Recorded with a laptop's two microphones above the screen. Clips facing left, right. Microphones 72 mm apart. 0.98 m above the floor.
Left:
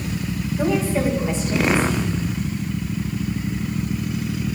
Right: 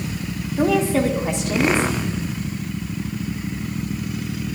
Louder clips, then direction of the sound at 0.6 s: Right 3 dB; 80° right.